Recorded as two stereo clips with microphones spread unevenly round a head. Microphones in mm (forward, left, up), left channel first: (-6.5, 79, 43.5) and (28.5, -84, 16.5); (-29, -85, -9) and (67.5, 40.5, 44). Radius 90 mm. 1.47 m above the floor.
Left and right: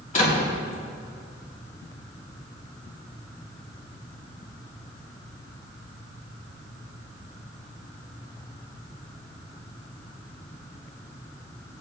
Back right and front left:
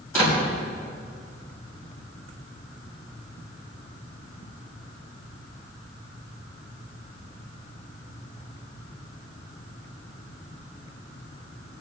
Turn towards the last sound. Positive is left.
turn(degrees=150)